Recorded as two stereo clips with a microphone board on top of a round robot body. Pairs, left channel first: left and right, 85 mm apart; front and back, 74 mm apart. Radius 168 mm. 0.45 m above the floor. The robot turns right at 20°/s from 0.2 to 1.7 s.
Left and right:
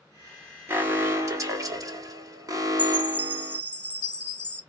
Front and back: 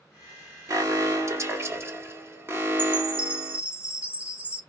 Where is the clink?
I don't hear a clink.